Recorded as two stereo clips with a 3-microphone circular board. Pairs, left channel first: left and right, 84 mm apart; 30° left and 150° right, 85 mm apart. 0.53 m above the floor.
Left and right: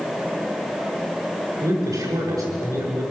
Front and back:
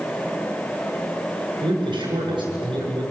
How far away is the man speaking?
About 8 m.